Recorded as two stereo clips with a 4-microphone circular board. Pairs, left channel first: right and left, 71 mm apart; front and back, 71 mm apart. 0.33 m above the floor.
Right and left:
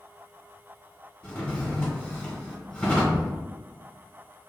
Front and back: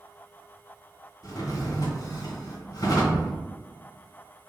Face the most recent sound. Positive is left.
turn(degrees=100)